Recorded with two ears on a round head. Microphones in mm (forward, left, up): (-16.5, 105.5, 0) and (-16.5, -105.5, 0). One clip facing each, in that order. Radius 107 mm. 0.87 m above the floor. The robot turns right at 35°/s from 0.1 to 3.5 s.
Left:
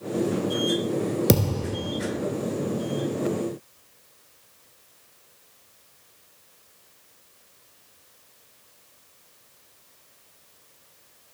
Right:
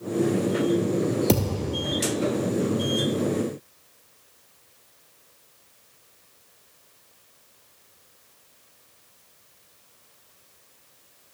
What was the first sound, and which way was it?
A thud, 15° left (ahead or behind).